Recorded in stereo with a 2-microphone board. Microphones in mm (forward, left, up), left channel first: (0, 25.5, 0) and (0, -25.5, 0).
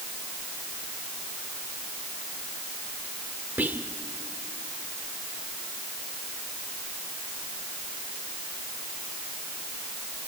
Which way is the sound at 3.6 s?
40° right (ahead or behind).